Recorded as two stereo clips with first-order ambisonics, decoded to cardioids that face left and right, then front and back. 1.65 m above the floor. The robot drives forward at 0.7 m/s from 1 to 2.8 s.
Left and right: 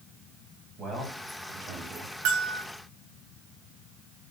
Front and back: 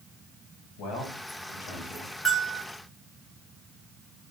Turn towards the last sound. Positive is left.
turn(degrees=-110)